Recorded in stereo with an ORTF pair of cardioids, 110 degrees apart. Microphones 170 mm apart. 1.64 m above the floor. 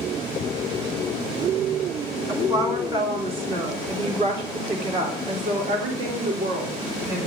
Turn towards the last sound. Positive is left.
turn(degrees=-60)